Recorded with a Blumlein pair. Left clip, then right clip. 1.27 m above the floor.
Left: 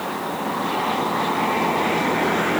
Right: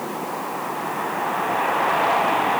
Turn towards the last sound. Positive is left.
No sound to turn to.